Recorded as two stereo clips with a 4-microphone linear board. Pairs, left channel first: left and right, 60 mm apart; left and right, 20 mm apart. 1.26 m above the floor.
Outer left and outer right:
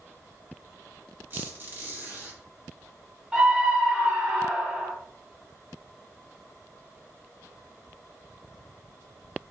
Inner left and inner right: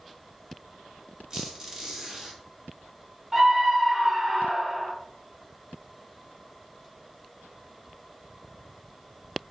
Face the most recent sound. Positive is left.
turn(degrees=-10)  # may be behind; listen again after turning